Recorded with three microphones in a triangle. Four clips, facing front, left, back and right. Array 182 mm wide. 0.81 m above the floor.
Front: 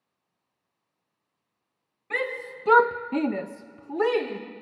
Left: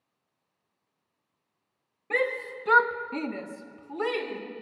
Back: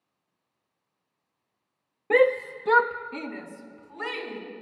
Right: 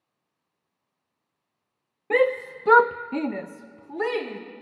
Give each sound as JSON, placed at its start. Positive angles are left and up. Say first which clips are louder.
{"t": 2.1, "sound": "a shout", "louder": "right 7 dB, back 11 dB", "azimuth_deg": -150, "distance_m": 0.9}